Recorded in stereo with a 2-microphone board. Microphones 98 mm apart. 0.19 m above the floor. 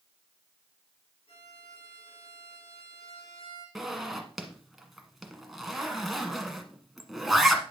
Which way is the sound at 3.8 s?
Centre (ahead or behind).